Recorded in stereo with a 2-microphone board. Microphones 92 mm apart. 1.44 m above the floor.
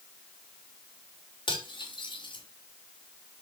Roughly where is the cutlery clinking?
Left.